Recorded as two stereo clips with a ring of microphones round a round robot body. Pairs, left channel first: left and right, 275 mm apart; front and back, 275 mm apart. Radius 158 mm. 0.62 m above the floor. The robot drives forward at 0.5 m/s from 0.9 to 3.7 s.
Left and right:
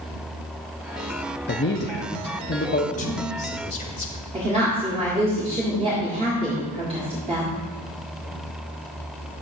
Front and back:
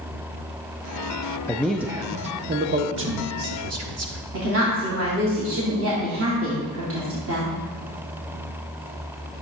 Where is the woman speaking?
155° right, 1.8 m.